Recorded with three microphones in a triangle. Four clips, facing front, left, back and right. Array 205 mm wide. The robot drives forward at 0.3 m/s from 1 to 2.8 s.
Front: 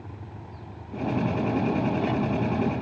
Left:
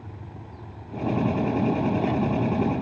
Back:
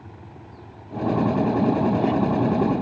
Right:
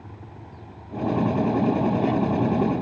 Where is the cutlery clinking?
No cutlery clinking in this recording.